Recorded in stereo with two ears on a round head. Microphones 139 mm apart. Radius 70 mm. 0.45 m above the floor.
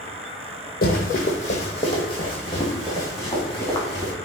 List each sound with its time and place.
0.8 s running footsteps: 60° left (ahead or behind), 1.1 m; by 4.1 s 15° left (ahead or behind), 2.5 m